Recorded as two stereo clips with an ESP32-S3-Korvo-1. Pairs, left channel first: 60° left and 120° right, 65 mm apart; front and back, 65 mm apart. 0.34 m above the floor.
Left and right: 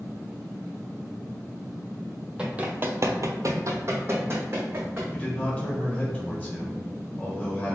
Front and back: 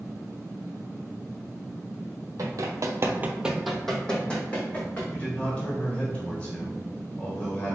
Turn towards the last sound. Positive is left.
turn(degrees=40)